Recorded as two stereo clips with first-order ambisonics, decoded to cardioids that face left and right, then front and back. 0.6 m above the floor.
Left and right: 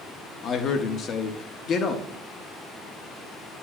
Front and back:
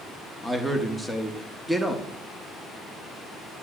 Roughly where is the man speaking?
Left.